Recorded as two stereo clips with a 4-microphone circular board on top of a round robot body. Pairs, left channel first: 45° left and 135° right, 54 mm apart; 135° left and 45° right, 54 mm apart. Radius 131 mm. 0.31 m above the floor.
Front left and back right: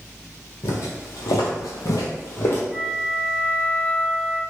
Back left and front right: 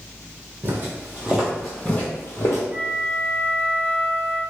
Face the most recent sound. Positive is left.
turn(degrees=-50)